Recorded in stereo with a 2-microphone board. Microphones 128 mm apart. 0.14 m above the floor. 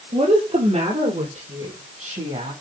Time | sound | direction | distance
0.1 | a woman speaking | 55° right (ahead or behind) | 4 m